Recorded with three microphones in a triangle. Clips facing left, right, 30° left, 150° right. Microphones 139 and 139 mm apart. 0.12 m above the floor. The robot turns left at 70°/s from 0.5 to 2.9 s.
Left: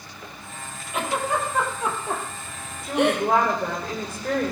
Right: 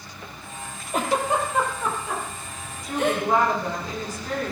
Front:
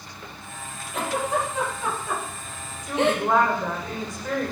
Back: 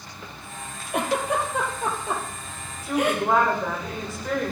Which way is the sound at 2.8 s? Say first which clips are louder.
Left 2 dB, even; 130° left.